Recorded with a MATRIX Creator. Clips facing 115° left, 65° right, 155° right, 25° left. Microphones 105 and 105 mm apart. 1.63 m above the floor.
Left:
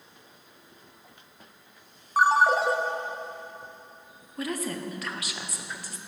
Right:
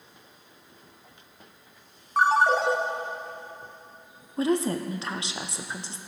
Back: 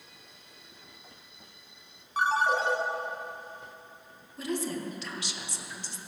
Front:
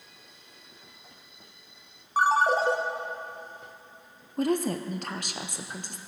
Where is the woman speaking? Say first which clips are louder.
Right 7 dB, front 6 dB; 10° right, 0.7 m.